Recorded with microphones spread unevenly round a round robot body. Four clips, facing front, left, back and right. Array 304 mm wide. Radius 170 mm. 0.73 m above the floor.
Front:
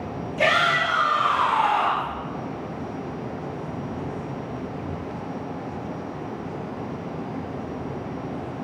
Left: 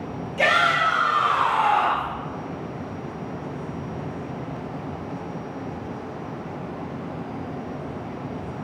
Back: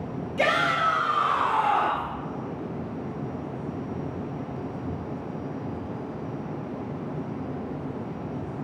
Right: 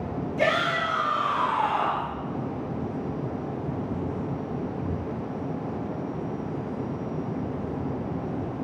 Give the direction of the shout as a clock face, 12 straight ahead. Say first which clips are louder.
Left 5 dB, front 2 dB; 6 o'clock.